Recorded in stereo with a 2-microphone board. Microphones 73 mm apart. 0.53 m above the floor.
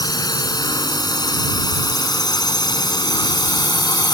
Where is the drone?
65° left (ahead or behind); by 4.1 s 75° left (ahead or behind).